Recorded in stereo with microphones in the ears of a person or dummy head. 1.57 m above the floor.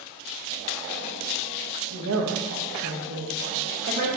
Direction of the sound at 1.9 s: 75° right (ahead or behind).